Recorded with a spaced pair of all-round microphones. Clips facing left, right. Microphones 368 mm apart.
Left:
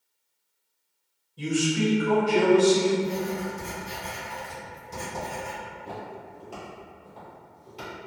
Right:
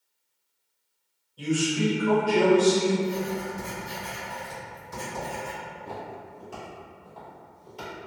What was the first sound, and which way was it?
A man speaking, 35° left (ahead or behind).